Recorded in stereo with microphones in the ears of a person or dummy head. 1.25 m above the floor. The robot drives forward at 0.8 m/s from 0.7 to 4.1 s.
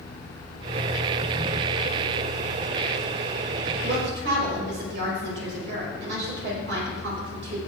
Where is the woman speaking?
60° right (ahead or behind), 5.5 m; by 7.6 s 65° right (ahead or behind), 5 m.